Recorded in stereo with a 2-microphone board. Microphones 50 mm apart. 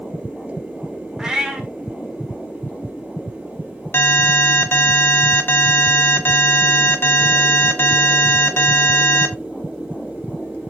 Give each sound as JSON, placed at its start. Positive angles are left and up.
{"t": 1.2, "sound": "a cat meowing", "side_deg": -15, "distance_m": 1.6}
{"t": 3.9, "sound": "an alarm", "side_deg": 50, "distance_m": 1.3}